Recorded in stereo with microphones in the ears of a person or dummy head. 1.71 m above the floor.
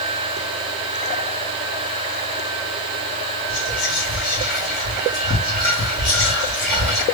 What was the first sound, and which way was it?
Whispering, 60° left (ahead or behind).